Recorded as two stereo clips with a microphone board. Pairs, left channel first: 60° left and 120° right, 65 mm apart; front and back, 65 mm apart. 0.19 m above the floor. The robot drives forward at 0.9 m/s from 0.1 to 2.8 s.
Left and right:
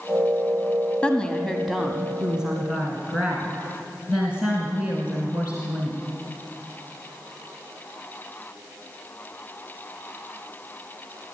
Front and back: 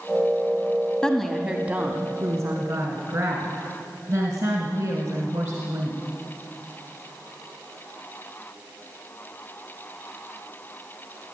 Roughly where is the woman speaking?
Ahead left.